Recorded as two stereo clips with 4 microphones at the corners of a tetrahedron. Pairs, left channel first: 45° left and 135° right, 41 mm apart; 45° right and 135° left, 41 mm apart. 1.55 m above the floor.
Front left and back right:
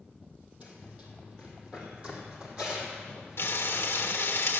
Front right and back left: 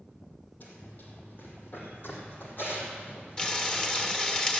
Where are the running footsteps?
85° right, 3 m; by 4.2 s 70° right, 4.5 m.